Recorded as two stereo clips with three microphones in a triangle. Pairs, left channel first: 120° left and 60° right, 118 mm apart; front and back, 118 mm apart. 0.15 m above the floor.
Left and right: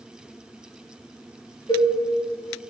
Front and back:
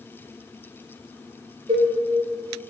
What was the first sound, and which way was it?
A cowbell, 165° left.